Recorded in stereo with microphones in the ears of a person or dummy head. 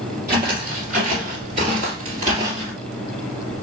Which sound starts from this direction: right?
Footsteps, at 0.3 s.